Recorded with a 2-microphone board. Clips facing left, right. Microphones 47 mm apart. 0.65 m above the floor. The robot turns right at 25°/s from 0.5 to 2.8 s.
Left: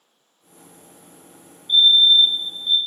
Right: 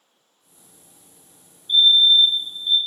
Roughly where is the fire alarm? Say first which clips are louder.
Left 1 dB; centre.